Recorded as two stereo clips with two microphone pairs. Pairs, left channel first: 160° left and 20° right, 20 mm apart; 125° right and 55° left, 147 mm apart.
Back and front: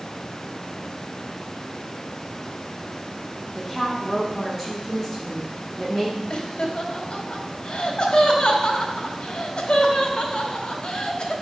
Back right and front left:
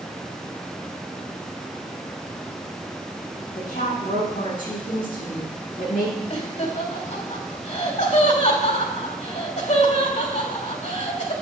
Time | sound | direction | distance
3.5 | a woman speaking | 115° right | 7 m
6.3 | laughter | 160° right | 2.5 m